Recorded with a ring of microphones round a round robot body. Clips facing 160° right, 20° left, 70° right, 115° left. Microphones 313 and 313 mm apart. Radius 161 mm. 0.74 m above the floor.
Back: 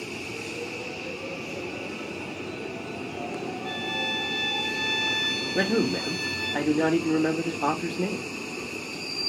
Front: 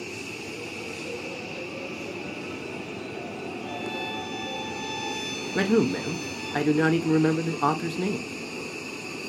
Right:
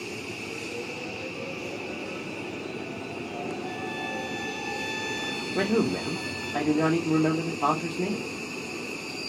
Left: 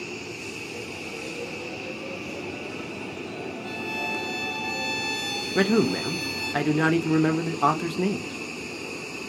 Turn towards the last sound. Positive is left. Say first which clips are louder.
# front 2 dB, left 3 dB
turn(degrees=80)